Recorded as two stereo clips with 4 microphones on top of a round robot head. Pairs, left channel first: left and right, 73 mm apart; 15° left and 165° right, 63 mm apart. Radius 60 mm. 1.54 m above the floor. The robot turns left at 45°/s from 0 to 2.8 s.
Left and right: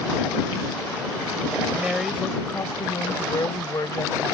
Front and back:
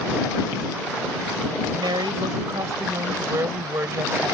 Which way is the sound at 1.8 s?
165° right.